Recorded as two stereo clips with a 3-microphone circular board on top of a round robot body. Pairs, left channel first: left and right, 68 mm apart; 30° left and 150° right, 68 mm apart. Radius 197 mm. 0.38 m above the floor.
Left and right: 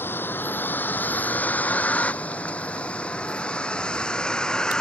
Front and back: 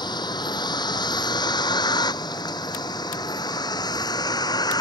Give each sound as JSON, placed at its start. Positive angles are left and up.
{"t": 0.0, "sound": "a vehicle", "azimuth_deg": 30}